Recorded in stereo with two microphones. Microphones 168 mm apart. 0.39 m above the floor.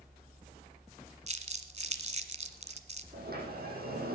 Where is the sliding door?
65° right (ahead or behind), 5 m.